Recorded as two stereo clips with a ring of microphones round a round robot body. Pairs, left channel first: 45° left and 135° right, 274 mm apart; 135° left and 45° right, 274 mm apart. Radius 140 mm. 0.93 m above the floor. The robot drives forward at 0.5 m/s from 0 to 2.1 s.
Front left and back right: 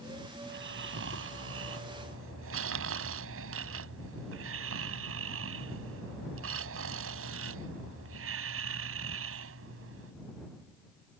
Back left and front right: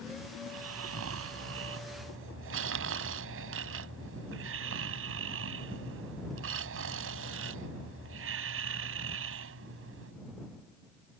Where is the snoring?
85° right; by 10.1 s 90° right.